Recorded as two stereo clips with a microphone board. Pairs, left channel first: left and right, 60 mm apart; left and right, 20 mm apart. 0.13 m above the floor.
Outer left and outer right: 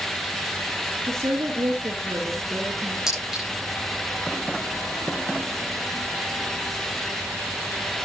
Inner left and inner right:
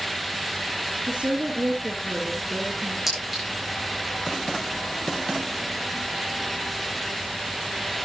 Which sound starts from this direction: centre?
A clink, at 3.1 s.